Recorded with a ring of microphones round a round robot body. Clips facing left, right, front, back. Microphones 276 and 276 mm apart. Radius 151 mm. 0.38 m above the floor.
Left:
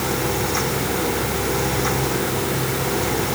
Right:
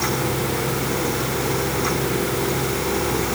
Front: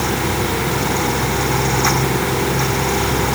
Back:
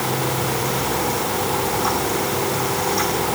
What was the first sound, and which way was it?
Only background noise.